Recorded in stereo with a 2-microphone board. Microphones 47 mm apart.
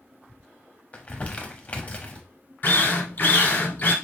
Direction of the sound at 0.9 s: 30° left (ahead or behind).